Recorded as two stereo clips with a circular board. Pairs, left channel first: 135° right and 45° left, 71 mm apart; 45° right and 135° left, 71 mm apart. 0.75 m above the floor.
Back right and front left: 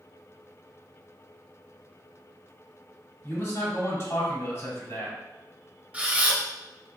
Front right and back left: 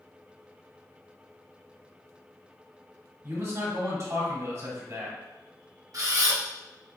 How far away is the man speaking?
About 1.9 m.